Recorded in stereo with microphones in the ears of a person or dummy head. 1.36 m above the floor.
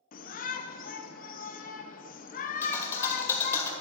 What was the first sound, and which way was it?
A shout, 45° left (ahead or behind).